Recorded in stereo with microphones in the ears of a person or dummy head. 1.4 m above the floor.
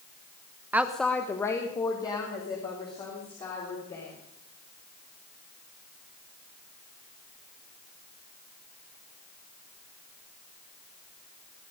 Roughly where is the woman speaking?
Centre.